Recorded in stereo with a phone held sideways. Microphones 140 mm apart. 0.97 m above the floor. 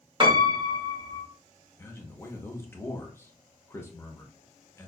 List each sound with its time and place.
0.2 s a piano: 35° right (ahead or behind), 1.0 m
1.8 s a man speaking: 15° left (ahead or behind), 0.8 m